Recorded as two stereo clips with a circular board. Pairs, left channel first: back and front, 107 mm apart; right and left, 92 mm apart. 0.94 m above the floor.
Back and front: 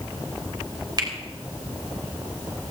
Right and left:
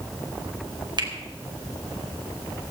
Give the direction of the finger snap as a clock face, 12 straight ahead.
10 o'clock.